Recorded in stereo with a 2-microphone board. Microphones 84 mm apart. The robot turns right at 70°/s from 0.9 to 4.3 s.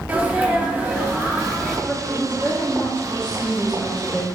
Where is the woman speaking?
20° left (ahead or behind), 0.7 m; by 4.3 s 15° right (ahead or behind), 0.7 m.